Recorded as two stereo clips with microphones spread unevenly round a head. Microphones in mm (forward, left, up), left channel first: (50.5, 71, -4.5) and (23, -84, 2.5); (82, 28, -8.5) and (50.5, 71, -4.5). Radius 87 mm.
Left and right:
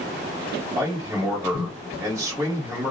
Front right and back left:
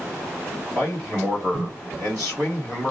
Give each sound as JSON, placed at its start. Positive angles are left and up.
{"t": 0.8, "sound": "a man speaking", "azimuth_deg": -175, "distance_m": 1.4}